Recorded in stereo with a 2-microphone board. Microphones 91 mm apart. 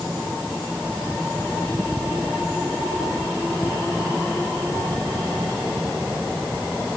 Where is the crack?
I don't hear a crack.